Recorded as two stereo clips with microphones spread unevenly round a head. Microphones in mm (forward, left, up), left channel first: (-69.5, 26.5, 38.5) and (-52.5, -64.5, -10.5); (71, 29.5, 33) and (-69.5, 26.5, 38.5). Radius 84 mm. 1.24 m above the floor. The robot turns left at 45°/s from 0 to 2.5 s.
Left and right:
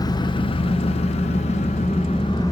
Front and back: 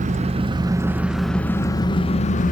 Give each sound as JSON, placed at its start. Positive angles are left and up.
{"t": 0.0, "sound": "an engine running", "azimuth_deg": 145, "distance_m": 0.7}